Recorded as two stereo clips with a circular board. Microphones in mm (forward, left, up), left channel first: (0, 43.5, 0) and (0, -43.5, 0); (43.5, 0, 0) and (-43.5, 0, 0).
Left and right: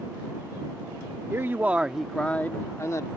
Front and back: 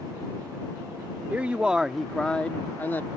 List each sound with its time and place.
1.3 s a man speaking: 125° right; by 3.1 s 55° left